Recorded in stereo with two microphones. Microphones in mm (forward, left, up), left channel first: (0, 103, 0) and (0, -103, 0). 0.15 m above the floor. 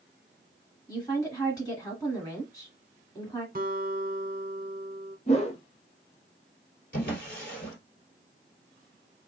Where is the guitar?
45° right (ahead or behind), 1.0 m.